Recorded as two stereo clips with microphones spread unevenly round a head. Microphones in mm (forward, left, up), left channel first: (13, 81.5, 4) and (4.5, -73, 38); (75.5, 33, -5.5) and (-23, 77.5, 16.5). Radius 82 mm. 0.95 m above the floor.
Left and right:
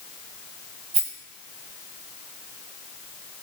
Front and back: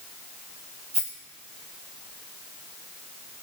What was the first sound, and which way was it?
A rattle, 150° right.